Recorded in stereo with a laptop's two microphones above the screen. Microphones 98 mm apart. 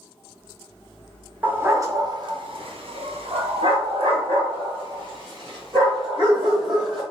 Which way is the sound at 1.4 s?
15° right (ahead or behind).